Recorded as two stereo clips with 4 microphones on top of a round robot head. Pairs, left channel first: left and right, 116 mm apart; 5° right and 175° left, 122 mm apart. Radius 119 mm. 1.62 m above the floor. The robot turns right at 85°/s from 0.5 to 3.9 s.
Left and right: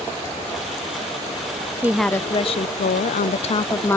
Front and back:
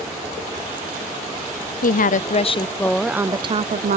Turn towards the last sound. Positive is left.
turn(degrees=160)